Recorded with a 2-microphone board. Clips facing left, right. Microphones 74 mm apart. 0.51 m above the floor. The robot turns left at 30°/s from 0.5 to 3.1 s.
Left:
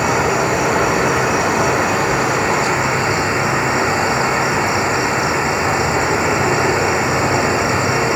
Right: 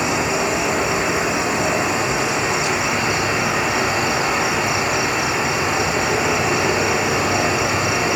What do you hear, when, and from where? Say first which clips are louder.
0.0 s an insect: left 4 dB; 115° left, 0.9 m; by 8.2 s 40° left, 0.9 m